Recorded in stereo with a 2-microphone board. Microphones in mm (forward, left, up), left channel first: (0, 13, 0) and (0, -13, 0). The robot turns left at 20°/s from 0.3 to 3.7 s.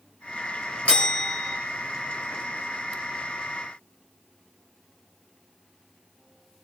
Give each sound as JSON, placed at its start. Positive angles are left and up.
{"t": 0.8, "sound": "a bell", "side_deg": 55, "distance_m": 3.0}